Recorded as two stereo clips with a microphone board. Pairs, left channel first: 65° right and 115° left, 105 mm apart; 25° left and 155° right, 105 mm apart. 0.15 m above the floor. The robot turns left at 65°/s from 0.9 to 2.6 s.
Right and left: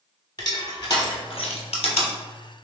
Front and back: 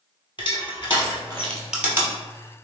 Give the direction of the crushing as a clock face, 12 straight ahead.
1 o'clock.